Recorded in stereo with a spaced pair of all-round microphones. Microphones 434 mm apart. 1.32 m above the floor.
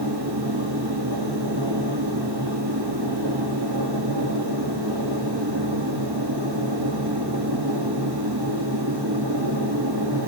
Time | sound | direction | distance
0.0 | a machine running | 65° right (ahead or behind) | 2.5 m